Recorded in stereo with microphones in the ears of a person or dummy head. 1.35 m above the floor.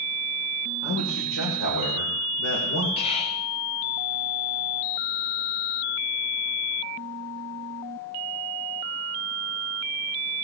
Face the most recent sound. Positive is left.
turn(degrees=30)  # may be behind; listen again after turning